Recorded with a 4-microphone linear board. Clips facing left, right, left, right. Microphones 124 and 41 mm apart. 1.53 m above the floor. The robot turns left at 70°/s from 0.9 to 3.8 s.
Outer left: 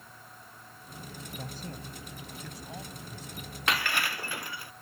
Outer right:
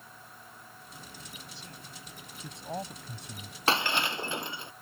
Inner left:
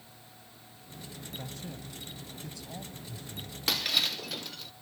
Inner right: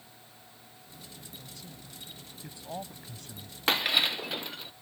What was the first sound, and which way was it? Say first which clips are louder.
A man speaking: outer left 7 dB, inner left 6 dB; 60° left.